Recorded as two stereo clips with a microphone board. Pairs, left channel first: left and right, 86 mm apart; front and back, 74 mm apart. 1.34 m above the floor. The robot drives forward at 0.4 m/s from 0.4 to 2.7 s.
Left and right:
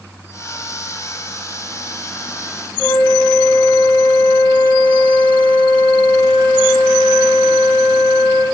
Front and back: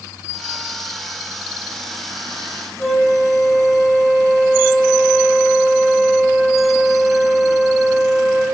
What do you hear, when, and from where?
2.8 s a flute: 85° left, 2.5 m